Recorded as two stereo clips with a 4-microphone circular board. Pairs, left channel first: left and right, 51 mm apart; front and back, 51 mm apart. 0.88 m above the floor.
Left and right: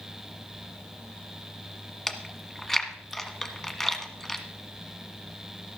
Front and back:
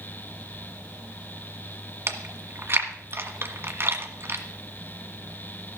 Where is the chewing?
175° left, 1.4 m.